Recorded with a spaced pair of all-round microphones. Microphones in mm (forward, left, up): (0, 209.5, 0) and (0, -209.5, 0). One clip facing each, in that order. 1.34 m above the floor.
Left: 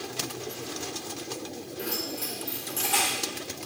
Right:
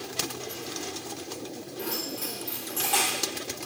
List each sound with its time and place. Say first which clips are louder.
1.8 s keys jangling: even; 10° right (ahead or behind), 1.4 m; by 3.2 s 20° right (ahead or behind), 2.5 m